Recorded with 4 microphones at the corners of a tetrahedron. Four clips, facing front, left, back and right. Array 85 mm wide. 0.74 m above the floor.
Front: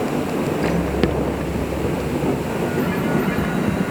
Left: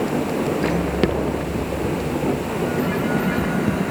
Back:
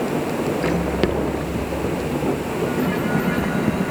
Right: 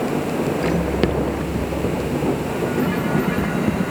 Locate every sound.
Only background noise.